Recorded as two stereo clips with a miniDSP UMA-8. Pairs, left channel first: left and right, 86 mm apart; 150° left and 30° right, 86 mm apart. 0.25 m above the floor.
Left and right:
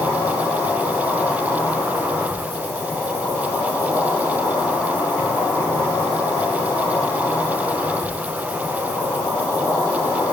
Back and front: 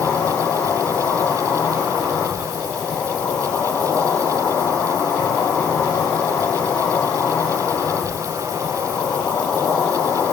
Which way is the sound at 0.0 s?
105° left.